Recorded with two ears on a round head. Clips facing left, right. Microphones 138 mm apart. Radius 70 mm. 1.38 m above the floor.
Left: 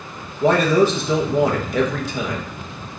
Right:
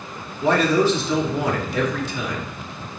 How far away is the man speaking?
About 1.4 m.